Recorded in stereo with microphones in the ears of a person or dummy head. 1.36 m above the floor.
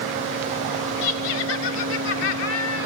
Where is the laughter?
70° left (ahead or behind), 3.5 m.